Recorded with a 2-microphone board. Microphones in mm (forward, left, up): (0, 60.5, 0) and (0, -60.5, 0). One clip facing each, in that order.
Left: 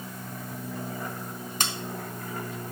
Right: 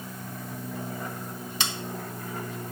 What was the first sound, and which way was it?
Scissors, 45° left (ahead or behind).